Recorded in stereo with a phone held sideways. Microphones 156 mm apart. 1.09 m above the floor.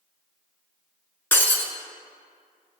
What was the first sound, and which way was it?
Breaking glass, 15° left (ahead or behind).